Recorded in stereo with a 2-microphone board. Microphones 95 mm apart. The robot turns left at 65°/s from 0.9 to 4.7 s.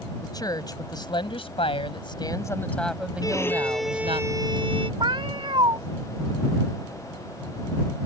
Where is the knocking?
I don't hear knocking.